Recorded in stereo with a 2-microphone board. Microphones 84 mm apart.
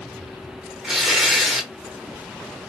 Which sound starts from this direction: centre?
Tearing paper, at 0.8 s.